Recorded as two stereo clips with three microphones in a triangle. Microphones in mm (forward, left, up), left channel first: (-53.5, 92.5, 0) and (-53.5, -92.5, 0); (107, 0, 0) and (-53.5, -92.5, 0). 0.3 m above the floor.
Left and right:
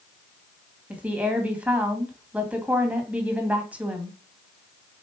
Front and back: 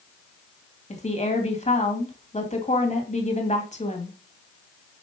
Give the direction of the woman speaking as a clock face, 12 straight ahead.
12 o'clock.